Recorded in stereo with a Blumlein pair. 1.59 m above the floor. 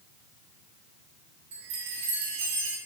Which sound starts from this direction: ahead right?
A chime, at 1.5 s.